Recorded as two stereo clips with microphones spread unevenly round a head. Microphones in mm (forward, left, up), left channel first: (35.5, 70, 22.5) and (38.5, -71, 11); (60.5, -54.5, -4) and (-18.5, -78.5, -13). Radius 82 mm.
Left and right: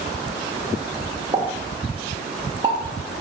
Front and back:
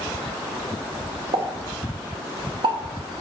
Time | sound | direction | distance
1.3 | a pop | 150° right | 0.6 m